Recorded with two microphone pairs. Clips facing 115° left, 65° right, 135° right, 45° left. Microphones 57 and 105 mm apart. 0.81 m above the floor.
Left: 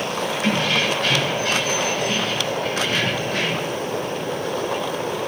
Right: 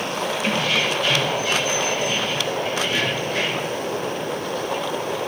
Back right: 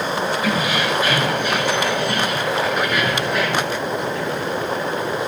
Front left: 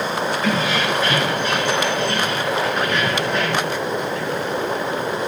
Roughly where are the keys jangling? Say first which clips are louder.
Left 2 dB, even; behind left.